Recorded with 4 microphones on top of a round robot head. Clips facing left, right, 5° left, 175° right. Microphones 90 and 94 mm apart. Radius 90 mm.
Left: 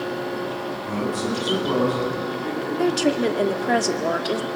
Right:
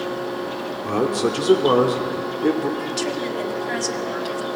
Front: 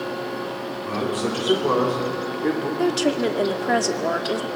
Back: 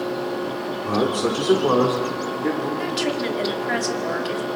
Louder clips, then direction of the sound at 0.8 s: Right 6 dB, back 4 dB; 115° right.